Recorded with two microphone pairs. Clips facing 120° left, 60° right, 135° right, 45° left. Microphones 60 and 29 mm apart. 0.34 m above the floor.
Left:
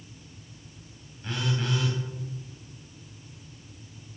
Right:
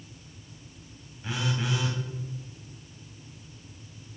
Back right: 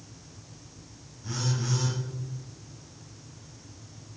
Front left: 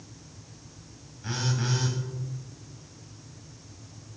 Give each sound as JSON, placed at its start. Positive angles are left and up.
{"t": 1.2, "sound": "a phone buzzing", "azimuth_deg": 20, "distance_m": 2.5}